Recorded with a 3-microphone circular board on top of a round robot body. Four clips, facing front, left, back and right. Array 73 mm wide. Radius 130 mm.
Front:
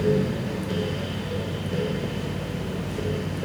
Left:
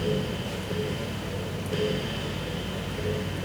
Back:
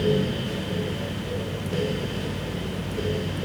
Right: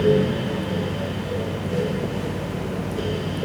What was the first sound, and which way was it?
Only background noise.